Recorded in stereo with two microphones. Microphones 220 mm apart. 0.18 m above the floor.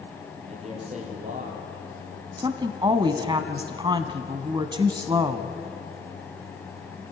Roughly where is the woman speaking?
Right.